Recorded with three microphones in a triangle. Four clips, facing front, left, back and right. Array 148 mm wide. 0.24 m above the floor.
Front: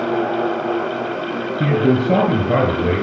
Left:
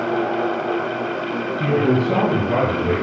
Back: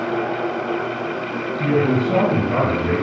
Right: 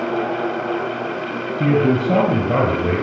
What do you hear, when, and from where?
1.6 s a man speaking: 30° right, 4 m; by 3.0 s 45° right, 3 m